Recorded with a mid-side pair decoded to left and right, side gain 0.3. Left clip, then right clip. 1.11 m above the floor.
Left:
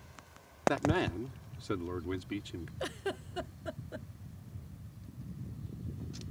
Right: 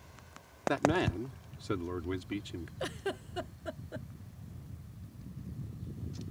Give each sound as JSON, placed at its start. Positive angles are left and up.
{"t": 0.7, "sound": "a man speaking", "azimuth_deg": -5}
{"t": 2.8, "sound": "a giggle", "azimuth_deg": 0}